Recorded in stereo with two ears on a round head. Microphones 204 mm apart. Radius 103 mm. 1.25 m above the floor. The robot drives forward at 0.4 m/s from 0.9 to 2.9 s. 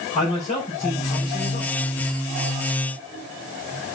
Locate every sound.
0.1 s a man speaking: 30° left (ahead or behind), 5 m; by 1.9 s 35° left (ahead or behind), 4.5 m